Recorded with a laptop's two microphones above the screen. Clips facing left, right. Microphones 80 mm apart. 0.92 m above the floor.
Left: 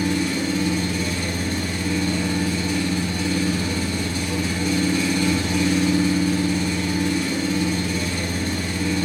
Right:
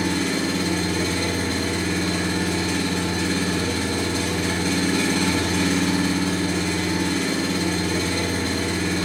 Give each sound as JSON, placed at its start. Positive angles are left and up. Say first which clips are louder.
{"t": 0.0, "sound": "an engine running", "louder": "left 1 dB", "side_deg": -70, "distance_m": 2.0}